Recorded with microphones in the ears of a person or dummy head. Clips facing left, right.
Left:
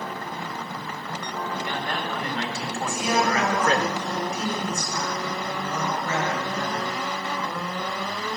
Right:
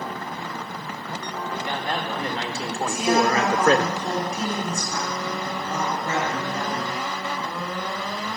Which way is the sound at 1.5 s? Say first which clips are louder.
Right 3 dB; 25° right (ahead or behind).